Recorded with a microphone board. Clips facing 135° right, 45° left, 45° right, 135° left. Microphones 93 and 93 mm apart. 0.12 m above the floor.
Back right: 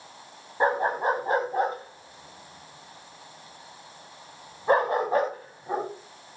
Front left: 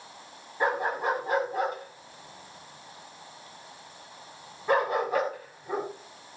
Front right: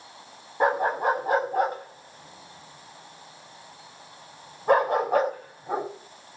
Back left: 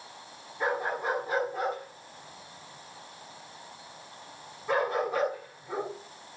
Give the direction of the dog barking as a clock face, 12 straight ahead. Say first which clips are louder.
Back right 3 dB, front right 7 dB; 3 o'clock.